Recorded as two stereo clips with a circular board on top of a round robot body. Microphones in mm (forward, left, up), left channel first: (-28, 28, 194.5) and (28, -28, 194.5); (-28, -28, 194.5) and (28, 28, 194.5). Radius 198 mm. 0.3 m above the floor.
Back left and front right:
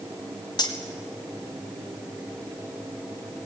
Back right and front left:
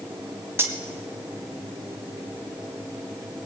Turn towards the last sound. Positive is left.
turn(degrees=105)